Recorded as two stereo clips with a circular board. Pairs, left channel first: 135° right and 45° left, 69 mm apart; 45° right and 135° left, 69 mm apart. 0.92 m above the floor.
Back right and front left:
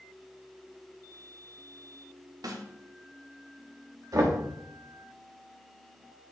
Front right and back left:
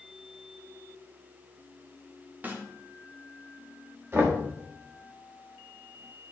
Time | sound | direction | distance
2.4 | a snare drum | 70° left | 0.8 m
4.1 | knocking | 80° left | 1.2 m